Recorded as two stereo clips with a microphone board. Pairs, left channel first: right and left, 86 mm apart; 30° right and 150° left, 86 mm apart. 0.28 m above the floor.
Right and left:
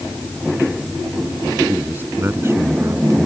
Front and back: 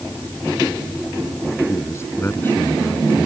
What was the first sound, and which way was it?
A man speaking, 20° left.